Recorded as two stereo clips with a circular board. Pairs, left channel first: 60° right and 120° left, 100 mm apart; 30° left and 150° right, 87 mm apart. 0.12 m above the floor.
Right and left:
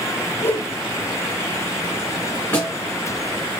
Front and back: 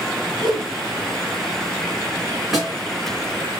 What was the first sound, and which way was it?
A whoosh, 130° right.